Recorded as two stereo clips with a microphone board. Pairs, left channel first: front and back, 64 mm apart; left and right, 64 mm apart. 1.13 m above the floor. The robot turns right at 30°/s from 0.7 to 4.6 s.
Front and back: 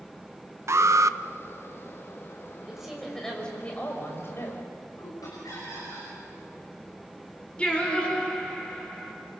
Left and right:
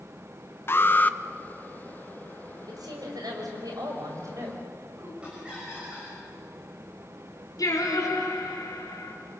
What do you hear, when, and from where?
0.7 s an alarm: 140° left, 0.6 m; by 1.2 s 155° left, 0.6 m
2.7 s a woman speaking: 100° right, 5.5 m; by 5.1 s 40° right, 5.5 m
5.2 s laughter: 15° right, 6 m
7.6 s singing: 70° left, 4 m